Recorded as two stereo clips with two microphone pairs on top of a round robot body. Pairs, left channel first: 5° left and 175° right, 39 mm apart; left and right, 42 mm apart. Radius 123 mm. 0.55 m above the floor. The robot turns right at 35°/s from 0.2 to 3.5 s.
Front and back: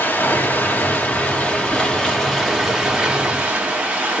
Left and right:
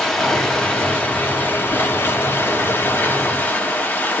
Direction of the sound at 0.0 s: 5° left.